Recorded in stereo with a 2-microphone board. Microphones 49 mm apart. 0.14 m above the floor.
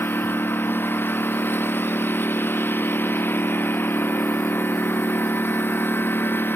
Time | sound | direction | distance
0.0 | a lawn mower | 45° left (ahead or behind) | ?